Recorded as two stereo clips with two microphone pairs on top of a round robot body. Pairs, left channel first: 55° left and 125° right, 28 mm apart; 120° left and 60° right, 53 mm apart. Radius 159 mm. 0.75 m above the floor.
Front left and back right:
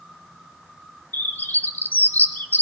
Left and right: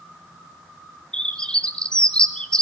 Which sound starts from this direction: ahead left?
A bird, at 1.1 s.